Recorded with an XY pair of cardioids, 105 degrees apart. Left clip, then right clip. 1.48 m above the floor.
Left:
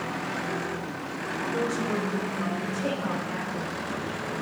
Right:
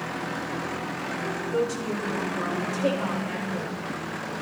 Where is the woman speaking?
50° right, 6 m.